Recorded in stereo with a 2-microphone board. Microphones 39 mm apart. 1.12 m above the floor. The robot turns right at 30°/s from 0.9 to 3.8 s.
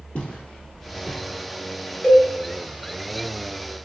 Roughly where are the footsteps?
Left.